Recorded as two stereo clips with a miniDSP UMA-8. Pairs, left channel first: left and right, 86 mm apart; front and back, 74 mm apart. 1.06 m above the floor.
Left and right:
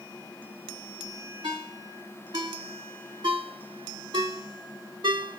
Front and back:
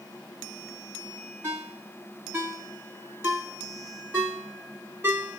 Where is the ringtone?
120° right, 1.6 m.